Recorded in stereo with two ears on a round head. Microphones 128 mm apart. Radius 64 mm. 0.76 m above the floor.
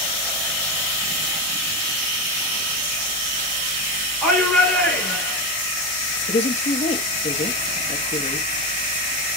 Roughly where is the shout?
Centre.